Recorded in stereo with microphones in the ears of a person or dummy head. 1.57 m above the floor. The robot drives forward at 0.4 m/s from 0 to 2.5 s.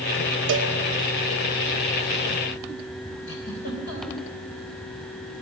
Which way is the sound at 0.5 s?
50° right (ahead or behind).